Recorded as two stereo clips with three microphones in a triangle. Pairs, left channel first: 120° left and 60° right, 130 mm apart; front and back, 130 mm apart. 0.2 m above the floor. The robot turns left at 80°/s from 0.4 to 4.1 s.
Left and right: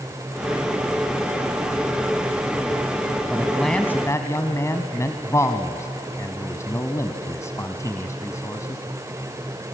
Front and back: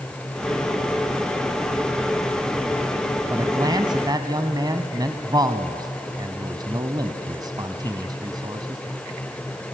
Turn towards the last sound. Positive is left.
turn(degrees=165)